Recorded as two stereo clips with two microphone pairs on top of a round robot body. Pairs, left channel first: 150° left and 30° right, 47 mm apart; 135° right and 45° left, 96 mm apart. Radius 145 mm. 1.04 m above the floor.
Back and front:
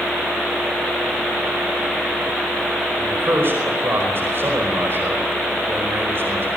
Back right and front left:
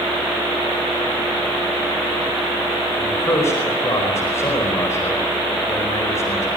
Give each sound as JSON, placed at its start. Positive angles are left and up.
{"t": 3.0, "sound": "a man speaking", "azimuth_deg": -70, "distance_m": 5.0}